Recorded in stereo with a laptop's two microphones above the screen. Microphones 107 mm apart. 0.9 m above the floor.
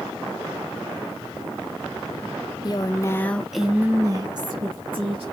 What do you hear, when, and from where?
2.6 s a woman speaking: 40° left (ahead or behind), 1.1 m; by 5.2 s 55° right (ahead or behind), 1.7 m